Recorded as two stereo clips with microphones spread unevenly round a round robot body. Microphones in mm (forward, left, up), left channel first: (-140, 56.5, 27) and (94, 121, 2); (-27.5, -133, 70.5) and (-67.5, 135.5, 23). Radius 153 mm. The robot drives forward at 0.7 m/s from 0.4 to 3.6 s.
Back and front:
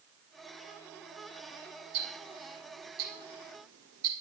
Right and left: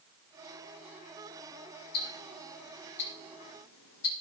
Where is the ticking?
25° right, 3.5 m; by 4.1 s 35° right, 2.5 m.